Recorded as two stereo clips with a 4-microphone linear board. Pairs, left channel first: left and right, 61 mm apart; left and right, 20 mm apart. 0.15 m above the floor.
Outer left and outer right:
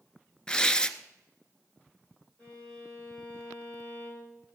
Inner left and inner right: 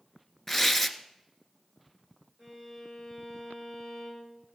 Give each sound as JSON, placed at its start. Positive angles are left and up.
{"t": 0.5, "sound": "tearing paper", "side_deg": 10, "distance_m": 0.7}
{"t": 2.4, "sound": "a violin", "side_deg": 20, "distance_m": 4.5}